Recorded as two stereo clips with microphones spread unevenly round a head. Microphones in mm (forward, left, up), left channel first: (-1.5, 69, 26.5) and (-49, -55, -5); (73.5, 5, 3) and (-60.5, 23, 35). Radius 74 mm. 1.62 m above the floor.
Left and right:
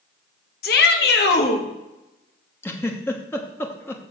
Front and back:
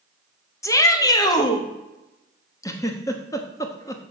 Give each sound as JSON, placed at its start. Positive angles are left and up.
{"t": 0.6, "sound": "a shout", "azimuth_deg": 65, "distance_m": 1.5}
{"t": 2.6, "sound": "a giggle", "azimuth_deg": 65, "distance_m": 1.0}